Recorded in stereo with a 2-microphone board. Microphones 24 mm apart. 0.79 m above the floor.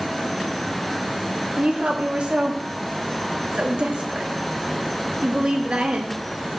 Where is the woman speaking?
45° right (ahead or behind), 1.0 m.